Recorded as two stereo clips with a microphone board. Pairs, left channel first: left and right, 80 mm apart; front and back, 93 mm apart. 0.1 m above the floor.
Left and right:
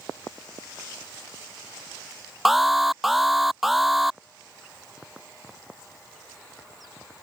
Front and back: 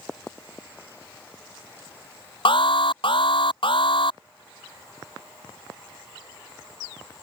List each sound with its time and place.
2.5 s an alarm: straight ahead